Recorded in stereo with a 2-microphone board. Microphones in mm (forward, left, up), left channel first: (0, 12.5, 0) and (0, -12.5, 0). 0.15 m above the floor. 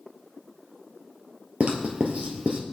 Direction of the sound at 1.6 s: 65° right (ahead or behind).